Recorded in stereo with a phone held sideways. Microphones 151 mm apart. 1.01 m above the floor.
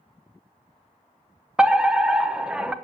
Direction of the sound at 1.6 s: 5° right (ahead or behind).